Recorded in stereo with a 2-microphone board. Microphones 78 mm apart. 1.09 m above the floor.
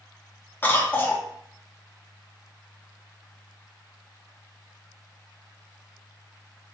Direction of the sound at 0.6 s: 25° left (ahead or behind).